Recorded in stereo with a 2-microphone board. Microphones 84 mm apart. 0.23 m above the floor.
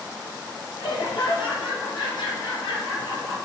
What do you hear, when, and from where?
0.8 s laughter: 75° left (ahead or behind), 5.5 m; by 3.4 s 55° left (ahead or behind), 4.5 m